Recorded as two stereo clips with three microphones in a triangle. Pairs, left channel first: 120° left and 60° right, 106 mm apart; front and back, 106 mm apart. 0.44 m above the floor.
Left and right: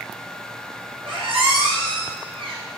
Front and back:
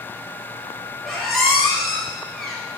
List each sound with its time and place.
1.1 s a squeak: 90° right, 1.1 m